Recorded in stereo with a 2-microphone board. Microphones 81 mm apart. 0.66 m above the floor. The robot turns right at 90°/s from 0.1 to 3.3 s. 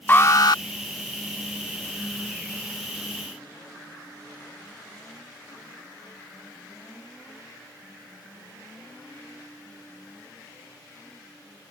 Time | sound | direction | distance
0.1 | an alarm | 25° left | ?